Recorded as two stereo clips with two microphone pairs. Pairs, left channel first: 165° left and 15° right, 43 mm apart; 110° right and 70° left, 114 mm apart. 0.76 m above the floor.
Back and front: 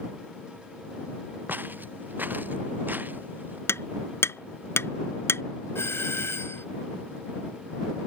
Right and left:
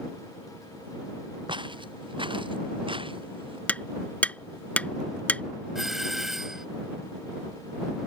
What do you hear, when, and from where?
1.5 s footsteps: 25° left; by 3.6 s 30° left
3.7 s hammering: 170° left
5.8 s a doorbell: 155° left